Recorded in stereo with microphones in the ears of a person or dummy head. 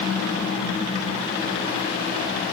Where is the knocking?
I don't hear knocking.